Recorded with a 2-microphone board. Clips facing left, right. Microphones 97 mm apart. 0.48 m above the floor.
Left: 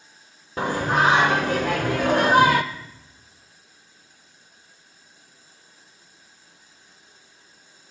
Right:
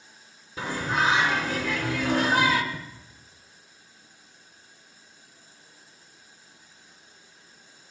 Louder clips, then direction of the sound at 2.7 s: Right 1 dB; 45° right (ahead or behind).